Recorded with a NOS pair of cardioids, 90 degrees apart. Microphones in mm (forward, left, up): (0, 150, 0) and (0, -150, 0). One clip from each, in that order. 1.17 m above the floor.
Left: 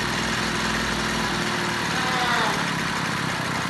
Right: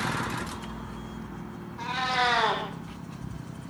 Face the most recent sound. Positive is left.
turn(degrees=-15)